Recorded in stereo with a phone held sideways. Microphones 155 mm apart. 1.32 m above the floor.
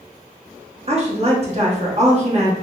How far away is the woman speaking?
About 1.0 m.